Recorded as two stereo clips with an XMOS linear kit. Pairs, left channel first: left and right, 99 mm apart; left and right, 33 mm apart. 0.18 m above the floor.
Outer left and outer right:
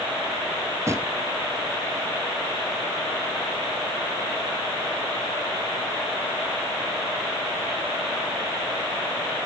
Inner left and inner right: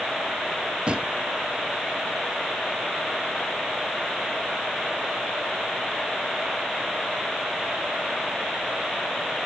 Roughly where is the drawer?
Right.